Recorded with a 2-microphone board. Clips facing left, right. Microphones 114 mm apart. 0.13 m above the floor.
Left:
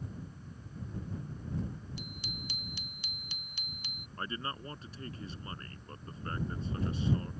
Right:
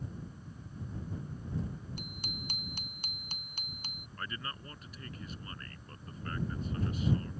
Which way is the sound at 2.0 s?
50° right (ahead or behind).